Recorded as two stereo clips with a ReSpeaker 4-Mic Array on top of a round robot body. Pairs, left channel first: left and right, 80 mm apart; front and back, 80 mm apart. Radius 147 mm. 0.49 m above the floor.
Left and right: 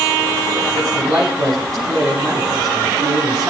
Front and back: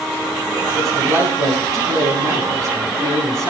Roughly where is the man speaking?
Behind right.